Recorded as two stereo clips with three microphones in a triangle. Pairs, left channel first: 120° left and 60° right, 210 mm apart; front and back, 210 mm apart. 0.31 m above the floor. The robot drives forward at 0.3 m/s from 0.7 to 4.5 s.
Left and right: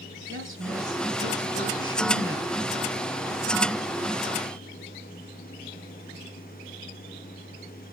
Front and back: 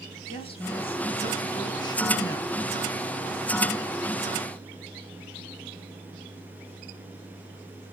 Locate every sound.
0.3 s a woman speaking: 60° right, 3 m; by 2.5 s 75° right, 2.5 m